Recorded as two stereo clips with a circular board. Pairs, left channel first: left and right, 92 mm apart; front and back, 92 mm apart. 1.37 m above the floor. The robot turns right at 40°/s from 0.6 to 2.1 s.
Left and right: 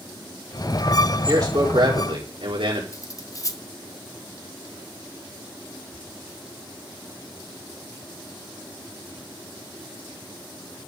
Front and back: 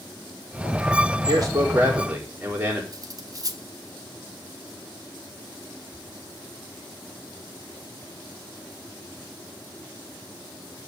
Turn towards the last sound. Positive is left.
turn(degrees=140)